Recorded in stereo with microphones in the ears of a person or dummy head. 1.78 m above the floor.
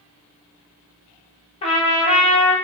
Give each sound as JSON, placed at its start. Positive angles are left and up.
{"t": 1.6, "sound": "a trumpet", "side_deg": 30, "distance_m": 0.7}